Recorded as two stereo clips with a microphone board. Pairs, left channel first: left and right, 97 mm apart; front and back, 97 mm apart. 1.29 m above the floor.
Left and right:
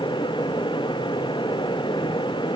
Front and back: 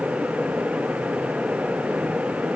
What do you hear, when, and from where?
Only background noise.